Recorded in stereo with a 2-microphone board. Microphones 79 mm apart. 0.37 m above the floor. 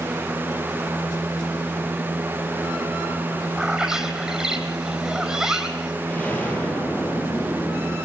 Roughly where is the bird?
Centre.